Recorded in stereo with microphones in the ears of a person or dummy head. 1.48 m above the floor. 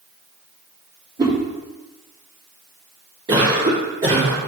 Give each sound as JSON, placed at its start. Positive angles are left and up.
{"t": 1.2, "sound": "a whoosh", "side_deg": -15, "distance_m": 3.0}
{"t": 3.3, "sound": "a cough", "side_deg": -25, "distance_m": 3.0}